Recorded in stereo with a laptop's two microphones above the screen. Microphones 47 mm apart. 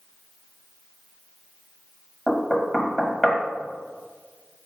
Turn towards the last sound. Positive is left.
turn(degrees=10)  # may be behind; listen again after turning